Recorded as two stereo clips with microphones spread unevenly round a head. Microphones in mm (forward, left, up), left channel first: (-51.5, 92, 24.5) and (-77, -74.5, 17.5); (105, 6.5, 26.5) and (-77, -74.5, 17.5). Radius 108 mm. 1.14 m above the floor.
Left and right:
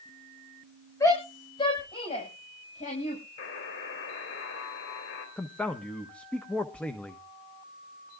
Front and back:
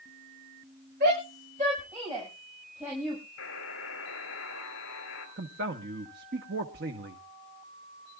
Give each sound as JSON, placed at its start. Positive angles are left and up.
{"t": 1.0, "sound": "a shout", "azimuth_deg": 150, "distance_m": 5.5}
{"t": 3.4, "sound": "a buzzer", "azimuth_deg": 60, "distance_m": 3.5}
{"t": 5.4, "sound": "a man speaking", "azimuth_deg": 165, "distance_m": 1.2}